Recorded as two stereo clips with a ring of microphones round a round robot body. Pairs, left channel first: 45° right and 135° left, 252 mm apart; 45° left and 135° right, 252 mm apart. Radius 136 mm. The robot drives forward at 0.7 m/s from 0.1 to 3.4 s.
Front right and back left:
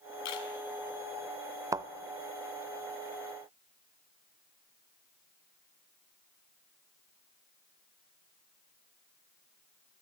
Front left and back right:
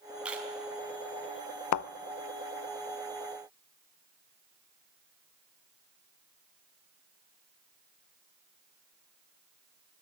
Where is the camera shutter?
50° right, 4 m.